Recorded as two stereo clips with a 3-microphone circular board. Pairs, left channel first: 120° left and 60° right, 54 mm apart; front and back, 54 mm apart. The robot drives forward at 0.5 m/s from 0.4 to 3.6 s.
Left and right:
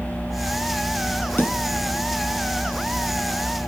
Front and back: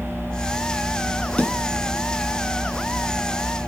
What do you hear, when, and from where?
1.4 s a snare drum: 70° left, 5 m